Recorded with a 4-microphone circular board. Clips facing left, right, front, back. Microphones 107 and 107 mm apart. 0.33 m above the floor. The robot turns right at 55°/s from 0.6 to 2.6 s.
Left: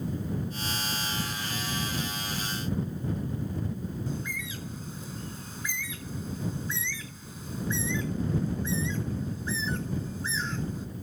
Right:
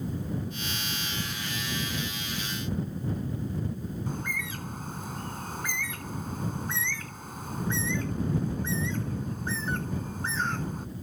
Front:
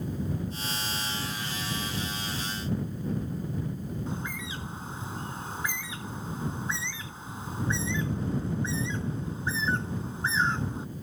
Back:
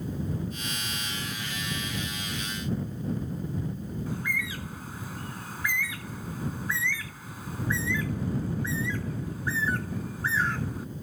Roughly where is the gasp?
No gasp in this recording.